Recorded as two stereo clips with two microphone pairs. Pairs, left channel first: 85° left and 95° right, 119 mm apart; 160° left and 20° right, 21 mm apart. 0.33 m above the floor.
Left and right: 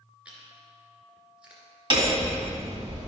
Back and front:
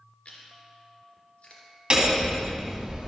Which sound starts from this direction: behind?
Chewing, at 0.2 s.